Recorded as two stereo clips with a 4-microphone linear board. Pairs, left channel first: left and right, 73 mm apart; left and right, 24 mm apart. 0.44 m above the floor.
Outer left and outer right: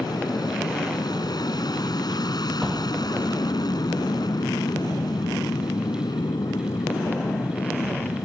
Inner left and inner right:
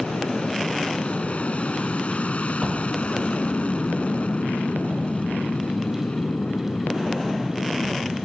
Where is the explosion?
Centre (ahead or behind).